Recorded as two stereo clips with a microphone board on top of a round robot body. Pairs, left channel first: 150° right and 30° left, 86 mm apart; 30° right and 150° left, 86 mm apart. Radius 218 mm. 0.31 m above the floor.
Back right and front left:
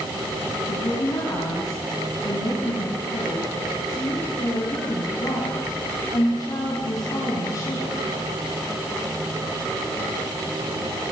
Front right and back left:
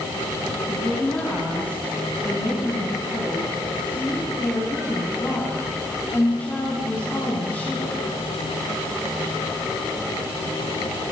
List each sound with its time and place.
0.7 s a woman speaking: 100° right, 5 m